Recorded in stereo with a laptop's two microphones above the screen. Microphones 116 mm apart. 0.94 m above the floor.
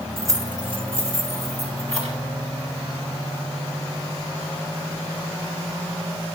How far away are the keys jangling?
About 1.3 m.